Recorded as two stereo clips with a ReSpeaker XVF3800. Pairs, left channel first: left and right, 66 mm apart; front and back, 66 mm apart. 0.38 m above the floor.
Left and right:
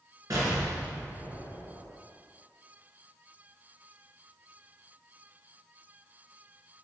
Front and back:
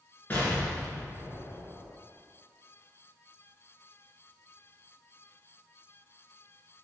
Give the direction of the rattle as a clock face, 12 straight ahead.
I don't hear a rattle.